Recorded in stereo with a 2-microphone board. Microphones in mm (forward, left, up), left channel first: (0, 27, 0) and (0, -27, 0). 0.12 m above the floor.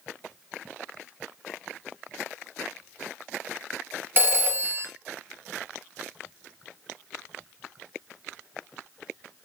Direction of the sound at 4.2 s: 45° right (ahead or behind).